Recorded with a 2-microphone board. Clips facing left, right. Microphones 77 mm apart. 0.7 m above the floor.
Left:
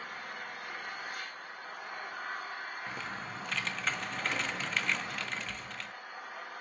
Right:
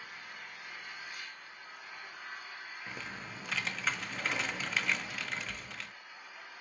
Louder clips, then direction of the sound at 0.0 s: Left 6 dB; 55° left (ahead or behind).